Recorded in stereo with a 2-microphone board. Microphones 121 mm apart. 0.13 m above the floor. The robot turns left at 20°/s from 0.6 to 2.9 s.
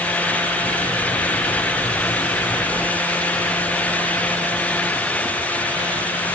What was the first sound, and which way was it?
Only background noise.